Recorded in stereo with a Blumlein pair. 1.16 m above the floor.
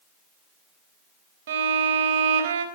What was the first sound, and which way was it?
A violin, 60° right.